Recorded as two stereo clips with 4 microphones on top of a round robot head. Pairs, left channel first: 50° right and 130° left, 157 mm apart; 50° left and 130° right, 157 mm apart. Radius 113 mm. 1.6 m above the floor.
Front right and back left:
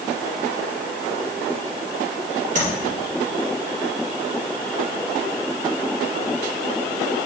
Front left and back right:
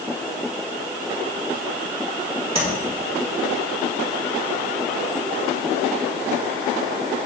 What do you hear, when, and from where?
2.5 s tapping: 175° left, 2.5 m